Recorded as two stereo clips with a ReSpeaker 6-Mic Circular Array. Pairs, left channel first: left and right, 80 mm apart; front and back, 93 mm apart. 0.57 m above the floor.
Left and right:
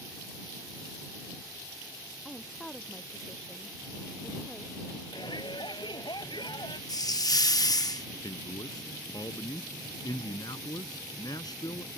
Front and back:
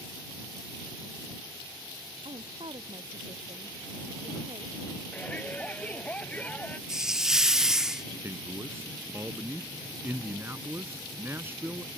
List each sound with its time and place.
2.2 s a woman speaking: 170° left; by 4.9 s 175° left
5.1 s a shout: 75° left
6.9 s a hiss: 95° left
8.2 s a man speaking: 115° left